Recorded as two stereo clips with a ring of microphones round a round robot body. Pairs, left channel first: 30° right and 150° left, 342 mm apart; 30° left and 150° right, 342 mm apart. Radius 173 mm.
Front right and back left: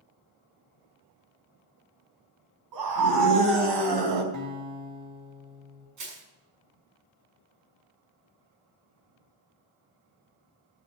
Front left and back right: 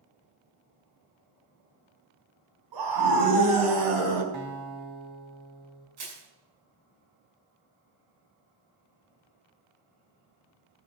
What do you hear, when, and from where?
2.7 s a scream: 175° right, 4.5 m; by 4.2 s 175° left, 4 m
4.3 s a guitar: 170° right, 2.5 m
6.0 s crushing: 170° right, 7.5 m